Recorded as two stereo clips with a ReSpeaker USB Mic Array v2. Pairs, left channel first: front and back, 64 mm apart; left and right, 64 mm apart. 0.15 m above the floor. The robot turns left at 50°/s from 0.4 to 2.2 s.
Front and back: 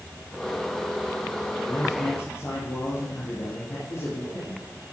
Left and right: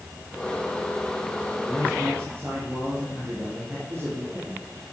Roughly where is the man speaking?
Ahead.